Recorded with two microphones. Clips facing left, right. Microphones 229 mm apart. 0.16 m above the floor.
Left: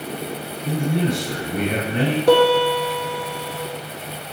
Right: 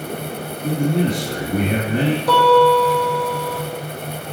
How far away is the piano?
About 2 m.